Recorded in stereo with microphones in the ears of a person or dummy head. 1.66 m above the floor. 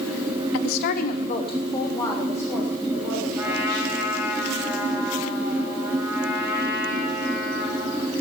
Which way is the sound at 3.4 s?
10° right (ahead or behind).